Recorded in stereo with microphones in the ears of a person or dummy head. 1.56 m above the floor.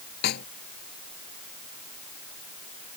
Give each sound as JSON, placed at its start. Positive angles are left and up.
{"t": 0.2, "sound": "a snare drum", "side_deg": 55}